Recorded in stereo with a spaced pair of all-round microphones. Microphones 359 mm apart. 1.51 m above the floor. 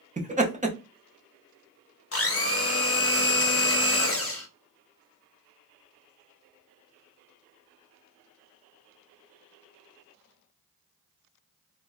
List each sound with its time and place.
0.2 s laughter: 20° right (ahead or behind), 0.6 m
2.1 s a blender: 40° left (ahead or behind), 0.5 m